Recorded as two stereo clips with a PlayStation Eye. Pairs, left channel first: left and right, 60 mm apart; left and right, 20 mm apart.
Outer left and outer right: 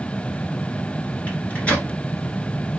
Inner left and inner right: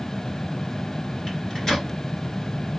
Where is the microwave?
25° left (ahead or behind), 1.1 m.